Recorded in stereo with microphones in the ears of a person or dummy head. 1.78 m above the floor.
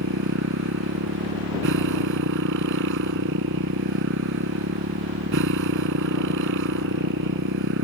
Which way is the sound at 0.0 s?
75° right (ahead or behind).